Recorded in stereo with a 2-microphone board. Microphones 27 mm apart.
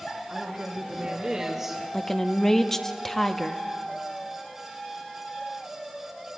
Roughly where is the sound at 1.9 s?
Centre.